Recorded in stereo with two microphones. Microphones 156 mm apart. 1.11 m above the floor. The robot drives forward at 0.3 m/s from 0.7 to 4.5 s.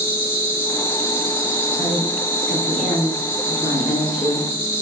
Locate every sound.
0.0 s an insect: 15° left (ahead or behind), 4.5 m; by 4.8 s 10° left (ahead or behind), 5.5 m
1.8 s a woman speaking: 5° right (ahead or behind), 4.5 m